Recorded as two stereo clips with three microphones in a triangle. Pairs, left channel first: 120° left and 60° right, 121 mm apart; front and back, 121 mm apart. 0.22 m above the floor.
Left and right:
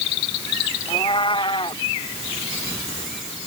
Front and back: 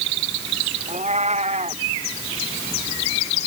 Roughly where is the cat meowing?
Behind.